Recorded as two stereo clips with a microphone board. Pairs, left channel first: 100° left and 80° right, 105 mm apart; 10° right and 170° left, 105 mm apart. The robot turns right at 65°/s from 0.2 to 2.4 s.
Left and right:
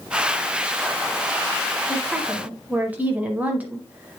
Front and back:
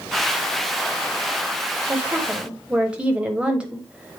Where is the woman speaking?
155° right, 1.0 m; by 4.2 s 125° right, 1.0 m.